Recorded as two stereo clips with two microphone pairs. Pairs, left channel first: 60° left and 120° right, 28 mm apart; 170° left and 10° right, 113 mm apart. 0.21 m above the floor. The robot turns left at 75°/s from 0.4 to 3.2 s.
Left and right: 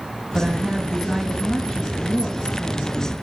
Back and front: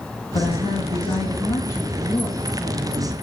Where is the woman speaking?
145° right, 2.5 m; by 3.1 s 10° left, 2.5 m.